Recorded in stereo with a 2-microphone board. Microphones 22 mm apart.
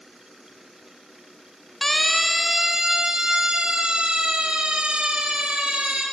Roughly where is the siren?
Centre.